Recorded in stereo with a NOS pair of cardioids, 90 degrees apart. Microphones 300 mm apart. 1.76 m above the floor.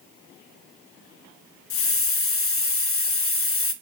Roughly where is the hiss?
Ahead left.